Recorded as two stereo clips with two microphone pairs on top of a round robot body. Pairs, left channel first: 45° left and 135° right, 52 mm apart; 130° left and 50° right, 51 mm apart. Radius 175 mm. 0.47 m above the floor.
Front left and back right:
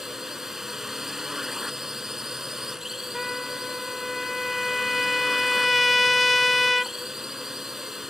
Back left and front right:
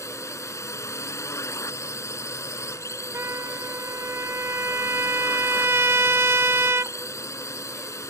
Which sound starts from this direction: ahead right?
A trumpet, at 3.1 s.